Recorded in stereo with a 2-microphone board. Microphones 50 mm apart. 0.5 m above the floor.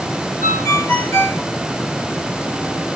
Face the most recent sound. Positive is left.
turn(degrees=70)  # may be behind; listen again after turning